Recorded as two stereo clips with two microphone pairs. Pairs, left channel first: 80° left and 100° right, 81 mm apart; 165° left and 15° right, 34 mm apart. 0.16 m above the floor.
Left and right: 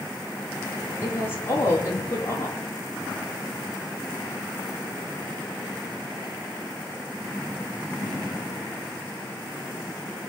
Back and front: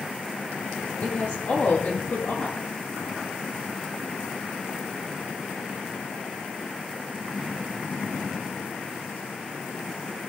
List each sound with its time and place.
1.0 s a woman speaking: 140° left, 6 m